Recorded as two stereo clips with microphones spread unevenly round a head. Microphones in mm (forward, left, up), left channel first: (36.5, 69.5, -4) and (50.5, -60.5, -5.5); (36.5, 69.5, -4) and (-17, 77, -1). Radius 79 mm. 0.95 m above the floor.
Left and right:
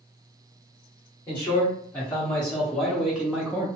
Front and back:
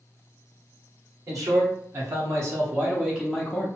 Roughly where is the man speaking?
Behind.